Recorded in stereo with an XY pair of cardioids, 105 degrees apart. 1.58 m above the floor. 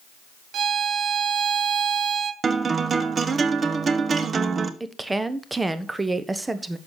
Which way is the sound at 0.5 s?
65° right.